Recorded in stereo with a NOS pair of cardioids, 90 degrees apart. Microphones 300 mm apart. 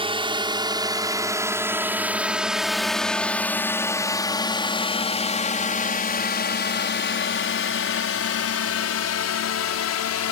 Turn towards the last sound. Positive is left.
turn(degrees=65)